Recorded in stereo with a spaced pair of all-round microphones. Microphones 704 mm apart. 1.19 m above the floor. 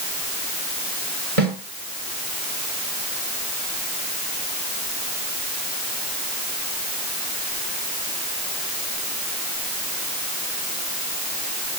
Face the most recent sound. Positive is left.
turn(degrees=-40)  # may be behind; listen again after turning